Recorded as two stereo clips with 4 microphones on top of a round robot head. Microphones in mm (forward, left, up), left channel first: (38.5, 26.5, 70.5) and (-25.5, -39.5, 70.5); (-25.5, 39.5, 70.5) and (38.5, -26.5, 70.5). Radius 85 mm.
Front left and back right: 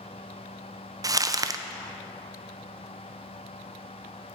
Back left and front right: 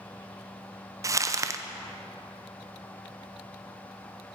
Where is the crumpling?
95° right, 0.8 m.